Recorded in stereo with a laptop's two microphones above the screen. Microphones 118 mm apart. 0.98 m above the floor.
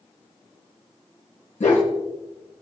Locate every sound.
1.6 s a dog barking: 85° left, 6 m